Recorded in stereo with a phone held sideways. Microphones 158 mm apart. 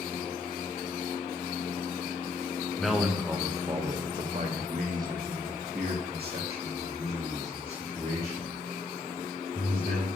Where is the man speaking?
Centre (ahead or behind), 1.4 m; by 10.1 s 80° right, 4.5 m.